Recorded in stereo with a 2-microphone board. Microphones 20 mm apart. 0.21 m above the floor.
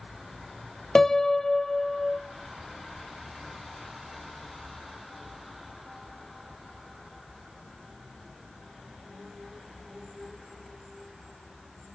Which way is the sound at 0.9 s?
25° left (ahead or behind).